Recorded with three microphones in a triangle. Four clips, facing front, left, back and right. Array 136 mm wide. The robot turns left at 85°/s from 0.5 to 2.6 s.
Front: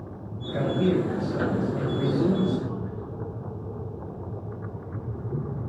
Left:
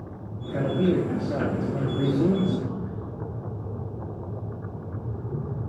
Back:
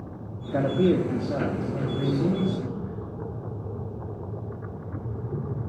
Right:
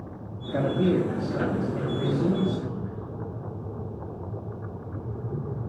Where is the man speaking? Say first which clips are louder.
Even, back 2 dB; 150° right, 2 m; by 3.0 s 35° left, 2 m.